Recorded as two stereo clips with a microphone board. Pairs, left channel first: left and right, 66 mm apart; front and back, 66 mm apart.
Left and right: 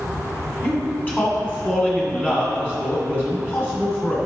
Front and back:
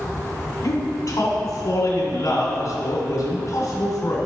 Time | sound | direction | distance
0.6 | a man speaking | 25° left | 2.5 m